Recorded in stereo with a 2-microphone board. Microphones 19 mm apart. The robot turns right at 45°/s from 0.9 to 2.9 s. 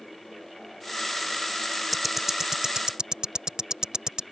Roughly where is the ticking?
Centre.